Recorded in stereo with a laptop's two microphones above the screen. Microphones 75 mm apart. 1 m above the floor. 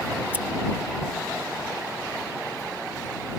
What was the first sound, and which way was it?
Scissors, 20° right (ahead or behind).